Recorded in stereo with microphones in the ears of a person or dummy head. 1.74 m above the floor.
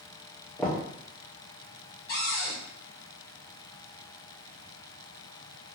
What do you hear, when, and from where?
0.6 s knocking: 5° left (ahead or behind), 1.2 m
2.1 s a cupboard door: 60° left (ahead or behind), 1.3 m